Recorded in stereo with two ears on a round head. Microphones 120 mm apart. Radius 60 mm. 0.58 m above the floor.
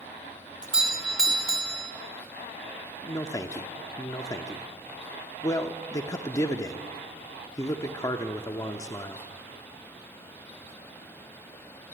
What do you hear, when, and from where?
0.6 s a doorbell: 5° right (ahead or behind), 1.3 m
3.0 s a man speaking: 25° left (ahead or behind), 1.1 m